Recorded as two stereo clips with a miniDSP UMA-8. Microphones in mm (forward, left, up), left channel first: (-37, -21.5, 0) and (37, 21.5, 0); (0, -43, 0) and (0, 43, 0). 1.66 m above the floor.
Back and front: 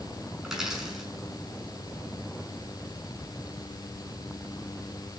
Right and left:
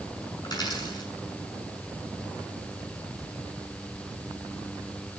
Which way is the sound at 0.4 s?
55° right.